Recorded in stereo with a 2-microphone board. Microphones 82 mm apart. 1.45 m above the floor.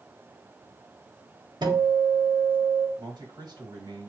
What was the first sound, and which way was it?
A guitar, 55° right (ahead or behind).